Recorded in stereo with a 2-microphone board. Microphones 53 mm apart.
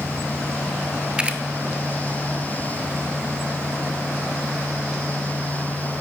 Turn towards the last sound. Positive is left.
turn(degrees=-20)  # may be behind; listen again after turning